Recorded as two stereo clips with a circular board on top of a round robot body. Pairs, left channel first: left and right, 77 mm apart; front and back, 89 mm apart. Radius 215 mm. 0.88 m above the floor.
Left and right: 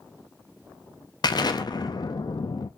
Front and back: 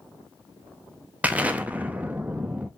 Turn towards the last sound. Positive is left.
turn(degrees=105)